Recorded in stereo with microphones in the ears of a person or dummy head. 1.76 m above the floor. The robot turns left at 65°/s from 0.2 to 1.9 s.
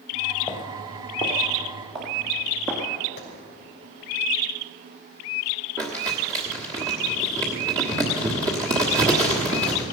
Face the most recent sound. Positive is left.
turn(degrees=-20)  # may be behind; listen again after turning